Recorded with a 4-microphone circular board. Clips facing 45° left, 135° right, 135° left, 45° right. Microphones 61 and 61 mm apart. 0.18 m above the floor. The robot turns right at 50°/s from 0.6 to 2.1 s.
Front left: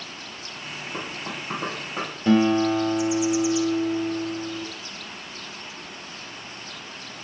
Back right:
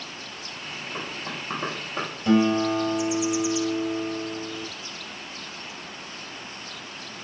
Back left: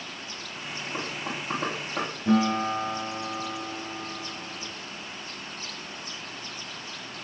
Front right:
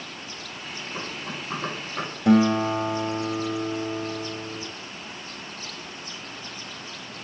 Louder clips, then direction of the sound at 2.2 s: Front left 2 dB, front right 5 dB; 20° right.